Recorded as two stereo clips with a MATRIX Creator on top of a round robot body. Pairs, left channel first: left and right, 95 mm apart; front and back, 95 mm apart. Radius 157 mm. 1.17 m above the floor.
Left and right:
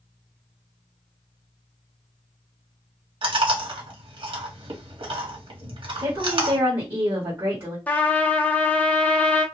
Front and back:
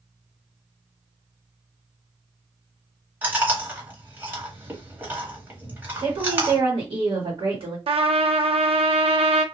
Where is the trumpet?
165° left, 0.6 m.